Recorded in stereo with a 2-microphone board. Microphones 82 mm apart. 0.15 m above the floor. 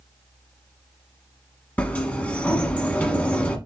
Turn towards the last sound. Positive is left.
turn(degrees=20)  # may be behind; listen again after turning